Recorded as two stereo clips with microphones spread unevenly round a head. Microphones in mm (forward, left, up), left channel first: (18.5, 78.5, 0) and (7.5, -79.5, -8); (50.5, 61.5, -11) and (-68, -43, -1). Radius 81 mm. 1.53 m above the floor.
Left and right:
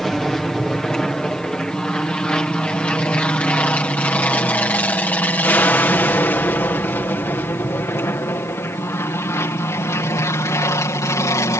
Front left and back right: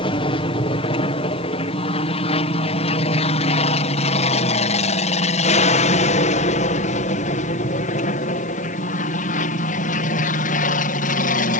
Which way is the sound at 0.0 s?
Straight ahead.